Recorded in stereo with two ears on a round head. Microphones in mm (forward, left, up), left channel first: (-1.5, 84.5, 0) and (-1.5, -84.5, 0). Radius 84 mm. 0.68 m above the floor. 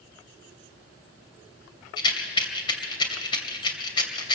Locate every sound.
2.0 s a rattle: 25° left (ahead or behind), 2.5 m